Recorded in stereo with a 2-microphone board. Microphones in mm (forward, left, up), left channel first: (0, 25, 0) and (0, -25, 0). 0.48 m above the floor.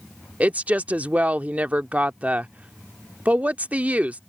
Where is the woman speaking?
30° right (ahead or behind).